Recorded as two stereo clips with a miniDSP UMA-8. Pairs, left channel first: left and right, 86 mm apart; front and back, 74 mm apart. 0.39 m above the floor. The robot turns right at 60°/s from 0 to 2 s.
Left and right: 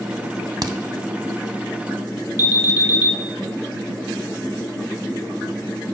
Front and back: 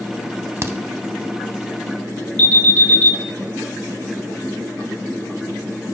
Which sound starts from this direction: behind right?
A crack, at 0.6 s.